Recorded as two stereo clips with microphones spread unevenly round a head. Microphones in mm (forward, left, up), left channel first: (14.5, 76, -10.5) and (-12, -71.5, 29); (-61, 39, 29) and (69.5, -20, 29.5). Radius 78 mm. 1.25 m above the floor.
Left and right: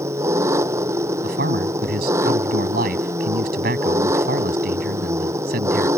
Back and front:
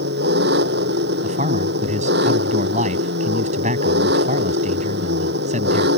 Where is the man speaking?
70° right.